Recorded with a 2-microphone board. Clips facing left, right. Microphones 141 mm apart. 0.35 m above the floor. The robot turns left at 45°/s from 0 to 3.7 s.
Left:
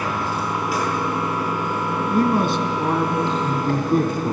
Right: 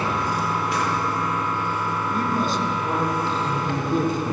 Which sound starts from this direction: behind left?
A man speaking, at 2.1 s.